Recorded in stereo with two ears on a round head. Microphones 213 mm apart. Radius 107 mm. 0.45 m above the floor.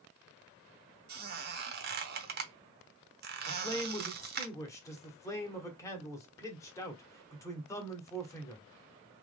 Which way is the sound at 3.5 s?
15° left (ahead or behind).